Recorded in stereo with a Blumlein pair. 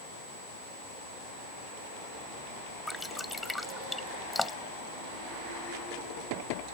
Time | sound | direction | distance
2.9 | dripping | 5° left | ?